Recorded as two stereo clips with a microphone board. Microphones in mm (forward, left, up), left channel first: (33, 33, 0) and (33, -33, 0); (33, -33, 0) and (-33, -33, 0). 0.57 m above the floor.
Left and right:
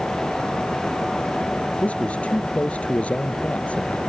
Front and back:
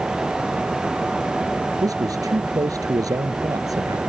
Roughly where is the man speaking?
Behind.